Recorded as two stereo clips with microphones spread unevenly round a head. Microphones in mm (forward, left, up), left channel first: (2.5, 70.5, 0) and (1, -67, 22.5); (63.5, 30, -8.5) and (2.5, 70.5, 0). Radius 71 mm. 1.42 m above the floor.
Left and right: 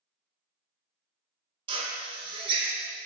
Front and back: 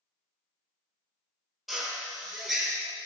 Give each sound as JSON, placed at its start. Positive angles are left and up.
{"t": 1.7, "sound": "a drill", "azimuth_deg": -130, "distance_m": 0.8}